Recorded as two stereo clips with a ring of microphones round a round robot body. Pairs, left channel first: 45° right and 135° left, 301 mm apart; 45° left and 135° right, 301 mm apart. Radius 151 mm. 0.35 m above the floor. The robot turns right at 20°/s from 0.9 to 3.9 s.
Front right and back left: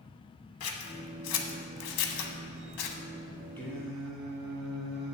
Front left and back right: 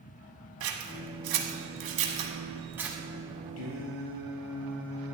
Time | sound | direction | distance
0.6 | scissors | 90° right | 1.2 m
3.6 | singing | 40° left | 2.5 m